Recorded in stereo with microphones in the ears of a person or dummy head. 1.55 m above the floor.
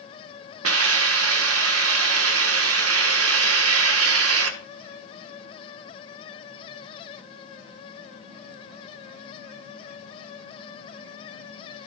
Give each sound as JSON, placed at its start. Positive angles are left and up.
{"t": 0.6, "sound": "a hiss", "side_deg": -85, "distance_m": 1.8}